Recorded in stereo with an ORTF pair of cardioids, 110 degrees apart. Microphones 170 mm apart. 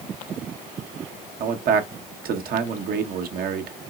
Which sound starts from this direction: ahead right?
A man speaking, at 1.4 s.